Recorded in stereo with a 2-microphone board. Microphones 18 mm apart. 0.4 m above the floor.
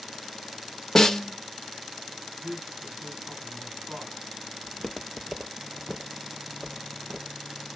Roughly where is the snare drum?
Centre.